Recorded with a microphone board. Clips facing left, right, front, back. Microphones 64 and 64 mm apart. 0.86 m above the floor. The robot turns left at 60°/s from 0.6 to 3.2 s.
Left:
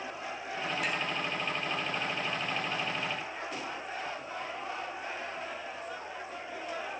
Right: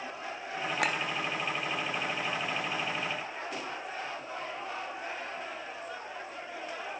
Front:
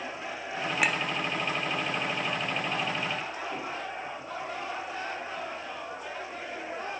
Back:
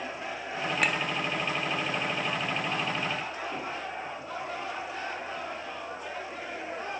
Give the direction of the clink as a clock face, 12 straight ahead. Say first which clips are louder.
Right 5 dB, front 1 dB; 3 o'clock.